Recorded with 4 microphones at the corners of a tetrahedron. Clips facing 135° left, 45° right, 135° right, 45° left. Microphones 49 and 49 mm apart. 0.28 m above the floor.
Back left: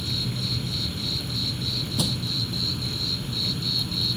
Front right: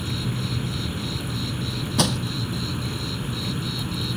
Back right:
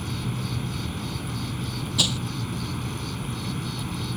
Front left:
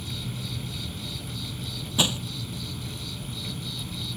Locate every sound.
0.0 s an insect: 100° right
2.0 s crushing: 20° right